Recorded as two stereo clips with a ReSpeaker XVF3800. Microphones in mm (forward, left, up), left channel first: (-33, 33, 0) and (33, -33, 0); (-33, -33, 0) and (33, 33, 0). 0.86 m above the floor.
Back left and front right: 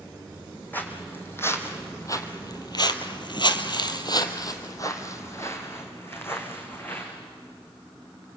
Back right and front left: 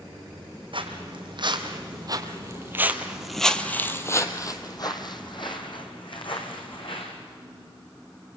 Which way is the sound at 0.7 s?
65° left.